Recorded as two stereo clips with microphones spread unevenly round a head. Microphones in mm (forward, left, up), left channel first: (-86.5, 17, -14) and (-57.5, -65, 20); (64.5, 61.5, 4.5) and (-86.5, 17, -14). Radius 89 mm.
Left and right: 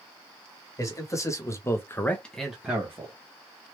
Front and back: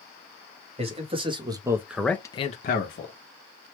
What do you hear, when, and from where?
0.8 s a man speaking: 150° left, 1.7 m; by 3.1 s 5° left, 1.0 m